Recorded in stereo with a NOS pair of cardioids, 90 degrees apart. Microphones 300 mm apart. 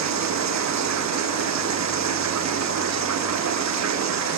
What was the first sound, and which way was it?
Running water, 65° right.